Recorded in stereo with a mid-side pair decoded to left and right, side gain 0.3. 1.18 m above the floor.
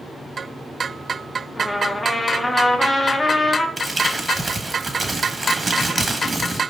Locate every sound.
1.6 s a trumpet: 30° left, 0.8 m
3.8 s crumpling: 35° right, 1.3 m